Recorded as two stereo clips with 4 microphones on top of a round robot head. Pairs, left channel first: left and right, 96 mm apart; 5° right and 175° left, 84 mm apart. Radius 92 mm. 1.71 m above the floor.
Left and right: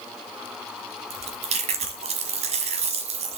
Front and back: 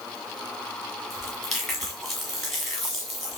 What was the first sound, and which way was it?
Chewing, 95° right.